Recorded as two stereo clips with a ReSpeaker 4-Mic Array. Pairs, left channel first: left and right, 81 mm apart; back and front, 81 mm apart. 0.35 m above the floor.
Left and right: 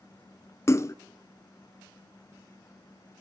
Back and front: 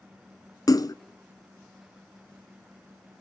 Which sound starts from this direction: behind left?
A splash, at 0.7 s.